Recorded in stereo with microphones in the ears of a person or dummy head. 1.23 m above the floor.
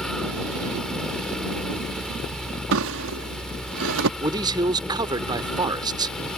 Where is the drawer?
75° right (ahead or behind).